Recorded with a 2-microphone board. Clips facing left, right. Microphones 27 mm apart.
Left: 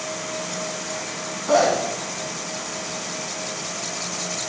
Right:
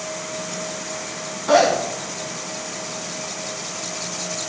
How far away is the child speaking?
I don't hear a child speaking.